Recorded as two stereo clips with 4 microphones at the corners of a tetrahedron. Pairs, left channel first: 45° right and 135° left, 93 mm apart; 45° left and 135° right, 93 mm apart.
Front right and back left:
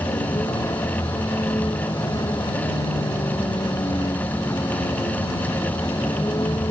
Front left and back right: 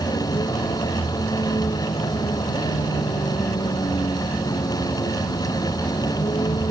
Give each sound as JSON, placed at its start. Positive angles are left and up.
{"t": 0.0, "sound": "a vehicle", "azimuth_deg": 5}